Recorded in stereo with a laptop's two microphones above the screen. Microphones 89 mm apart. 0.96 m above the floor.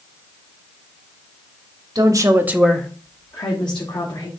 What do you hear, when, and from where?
1.9 s a woman speaking: 50° right (ahead or behind), 1.3 m; by 4.3 s 65° left (ahead or behind), 2.5 m